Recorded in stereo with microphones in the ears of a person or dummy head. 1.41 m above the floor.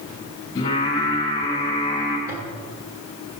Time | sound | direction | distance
0.6 | singing | 20° left (ahead or behind) | 9 m
2.3 | a toilet flushing | 25° right (ahead or behind) | 5 m